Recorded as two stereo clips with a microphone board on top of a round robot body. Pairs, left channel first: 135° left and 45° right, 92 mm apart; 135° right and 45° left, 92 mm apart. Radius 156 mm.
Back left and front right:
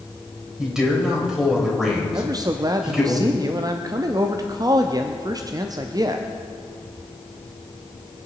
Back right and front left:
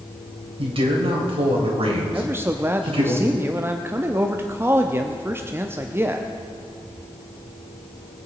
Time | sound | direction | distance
0.6 | a man speaking | 40° left | 3.5 m
2.1 | a man speaking | 10° right | 0.9 m